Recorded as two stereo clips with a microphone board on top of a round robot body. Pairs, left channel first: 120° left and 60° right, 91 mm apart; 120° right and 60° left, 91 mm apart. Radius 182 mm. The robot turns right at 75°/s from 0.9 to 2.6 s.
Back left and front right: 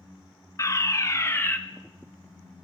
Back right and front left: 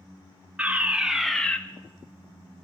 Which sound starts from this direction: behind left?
A fire alarm, at 0.6 s.